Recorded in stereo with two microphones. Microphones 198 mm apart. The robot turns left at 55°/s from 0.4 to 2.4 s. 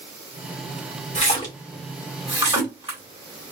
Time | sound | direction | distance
1.1 | a splash | 35° left (ahead or behind) | 2 m